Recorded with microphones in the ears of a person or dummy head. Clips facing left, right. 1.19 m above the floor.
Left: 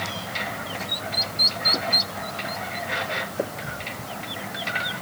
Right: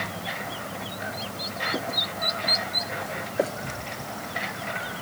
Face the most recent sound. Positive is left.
No sound to turn to.